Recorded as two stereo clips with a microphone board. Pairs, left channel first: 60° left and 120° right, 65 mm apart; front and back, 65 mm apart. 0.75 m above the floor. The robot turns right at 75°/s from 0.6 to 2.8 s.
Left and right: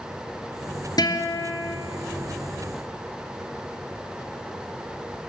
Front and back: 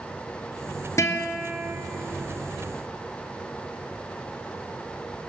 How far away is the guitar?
About 2.5 m.